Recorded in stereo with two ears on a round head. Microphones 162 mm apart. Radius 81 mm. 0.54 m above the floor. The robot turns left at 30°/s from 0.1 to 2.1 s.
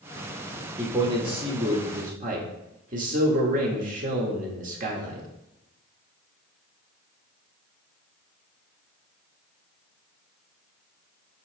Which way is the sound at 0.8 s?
20° right.